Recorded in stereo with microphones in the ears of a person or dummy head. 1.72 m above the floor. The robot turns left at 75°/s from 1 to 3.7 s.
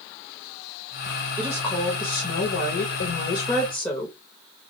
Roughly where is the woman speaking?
Behind.